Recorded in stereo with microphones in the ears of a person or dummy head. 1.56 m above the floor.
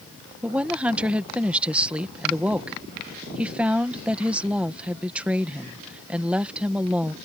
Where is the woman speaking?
5° right (ahead or behind).